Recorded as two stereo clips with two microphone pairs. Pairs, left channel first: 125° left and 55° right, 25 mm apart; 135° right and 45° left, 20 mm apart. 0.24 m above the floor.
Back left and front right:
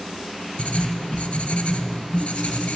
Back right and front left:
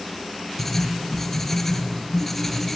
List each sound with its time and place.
0.6 s writing: 150° left, 0.8 m